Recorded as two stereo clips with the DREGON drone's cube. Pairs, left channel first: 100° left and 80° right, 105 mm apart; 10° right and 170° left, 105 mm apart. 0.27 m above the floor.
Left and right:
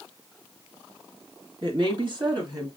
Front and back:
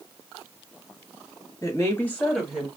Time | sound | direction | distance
1.6 | a woman speaking | 65° right | 2.0 m